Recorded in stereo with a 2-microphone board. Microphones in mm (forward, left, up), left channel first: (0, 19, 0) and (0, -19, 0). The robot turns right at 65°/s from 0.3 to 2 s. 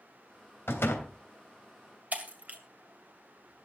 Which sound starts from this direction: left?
A door slam, at 0.7 s.